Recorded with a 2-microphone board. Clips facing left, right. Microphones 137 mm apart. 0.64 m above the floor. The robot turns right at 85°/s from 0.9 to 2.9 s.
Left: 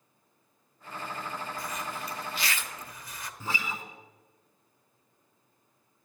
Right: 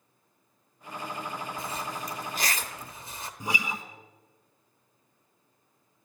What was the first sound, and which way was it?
A zipper, 20° right (ahead or behind).